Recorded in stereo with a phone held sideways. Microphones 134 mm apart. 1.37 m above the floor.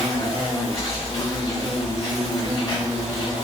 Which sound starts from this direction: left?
An insect, at 0.0 s.